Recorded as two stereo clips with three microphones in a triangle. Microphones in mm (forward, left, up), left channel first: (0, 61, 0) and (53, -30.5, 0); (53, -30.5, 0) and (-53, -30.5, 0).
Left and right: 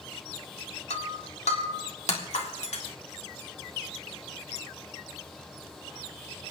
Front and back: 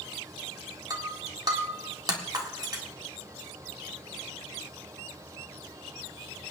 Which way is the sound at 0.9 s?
130° left.